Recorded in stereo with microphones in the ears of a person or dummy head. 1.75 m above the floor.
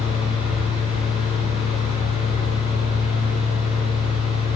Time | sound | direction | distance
0.0 | a fan | 30° left (ahead or behind) | 4.5 m